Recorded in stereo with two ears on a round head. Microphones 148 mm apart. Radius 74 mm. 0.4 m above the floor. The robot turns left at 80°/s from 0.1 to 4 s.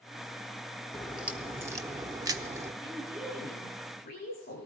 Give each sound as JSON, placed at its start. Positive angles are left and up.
{"t": 0.9, "sound": "a crack", "side_deg": 0, "distance_m": 1.0}
{"t": 2.8, "sound": "a woman speaking", "azimuth_deg": -145, "distance_m": 9.0}